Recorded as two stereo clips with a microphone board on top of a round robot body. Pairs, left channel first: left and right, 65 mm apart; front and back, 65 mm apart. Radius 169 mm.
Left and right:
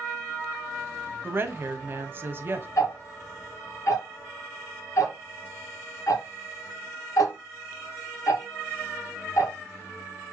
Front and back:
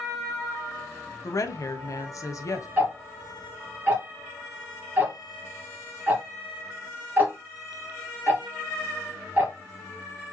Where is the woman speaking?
35° right, 1.2 m.